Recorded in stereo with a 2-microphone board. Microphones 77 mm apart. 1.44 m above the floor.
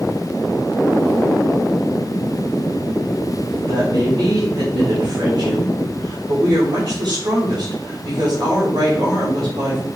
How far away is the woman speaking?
About 4 m.